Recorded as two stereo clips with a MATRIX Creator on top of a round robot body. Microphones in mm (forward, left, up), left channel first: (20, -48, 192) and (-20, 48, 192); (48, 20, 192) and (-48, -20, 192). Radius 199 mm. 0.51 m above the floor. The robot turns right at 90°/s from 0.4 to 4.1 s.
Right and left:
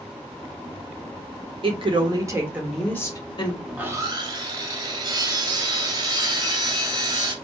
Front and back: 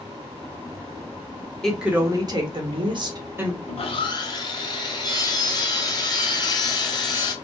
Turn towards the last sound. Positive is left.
turn(degrees=65)